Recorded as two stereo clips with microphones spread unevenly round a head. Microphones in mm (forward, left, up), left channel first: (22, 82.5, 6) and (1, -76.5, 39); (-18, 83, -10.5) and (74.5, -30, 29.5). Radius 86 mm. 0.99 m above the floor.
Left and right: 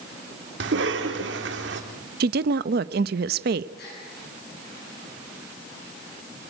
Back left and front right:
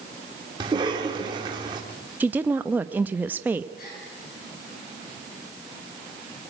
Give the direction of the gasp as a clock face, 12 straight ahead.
8 o'clock.